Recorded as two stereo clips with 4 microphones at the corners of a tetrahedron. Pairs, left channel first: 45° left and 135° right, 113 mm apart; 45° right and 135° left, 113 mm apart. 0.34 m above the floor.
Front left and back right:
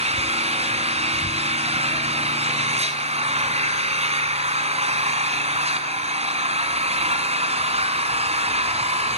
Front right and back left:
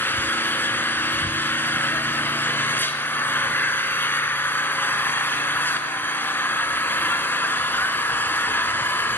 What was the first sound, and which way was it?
An engine running, 115° right.